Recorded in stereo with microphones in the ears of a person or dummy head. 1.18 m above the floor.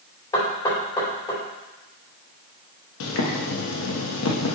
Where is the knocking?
25° left (ahead or behind), 2.5 m.